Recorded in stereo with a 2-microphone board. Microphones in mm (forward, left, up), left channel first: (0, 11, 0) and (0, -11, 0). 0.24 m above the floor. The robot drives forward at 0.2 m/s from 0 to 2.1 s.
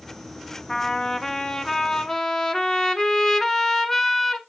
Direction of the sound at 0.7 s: 30° left (ahead or behind).